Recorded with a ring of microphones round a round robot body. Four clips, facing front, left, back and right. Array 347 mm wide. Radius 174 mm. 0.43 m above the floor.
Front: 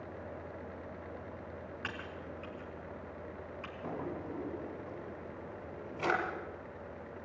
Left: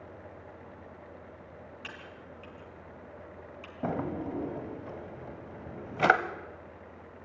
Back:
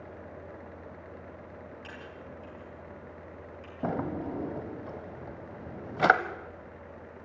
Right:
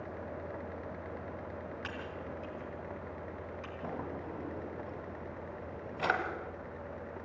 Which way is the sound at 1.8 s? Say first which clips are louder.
Right 5 dB, front 1 dB; 15° right.